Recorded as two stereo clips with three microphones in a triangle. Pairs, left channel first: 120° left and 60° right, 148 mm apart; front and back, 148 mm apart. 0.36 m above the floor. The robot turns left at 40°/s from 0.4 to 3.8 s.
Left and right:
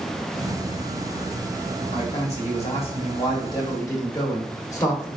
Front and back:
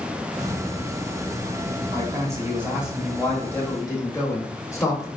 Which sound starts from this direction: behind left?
A man speaking, at 1.9 s.